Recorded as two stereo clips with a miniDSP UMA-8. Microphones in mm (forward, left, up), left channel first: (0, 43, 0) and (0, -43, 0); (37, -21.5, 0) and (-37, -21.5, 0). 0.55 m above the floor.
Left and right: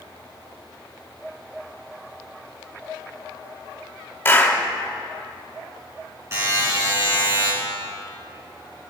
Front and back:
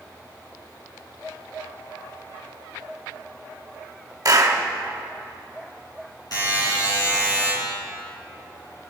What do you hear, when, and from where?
4.2 s a clap: 155° left, 1.7 m
6.3 s a buzzer: 30° right, 6 m